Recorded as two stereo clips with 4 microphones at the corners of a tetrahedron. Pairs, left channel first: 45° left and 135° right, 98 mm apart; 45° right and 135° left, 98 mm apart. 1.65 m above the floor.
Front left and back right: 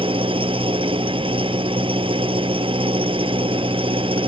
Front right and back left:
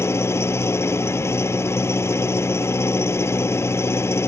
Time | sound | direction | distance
0.0 | an engine running | 110° right | ?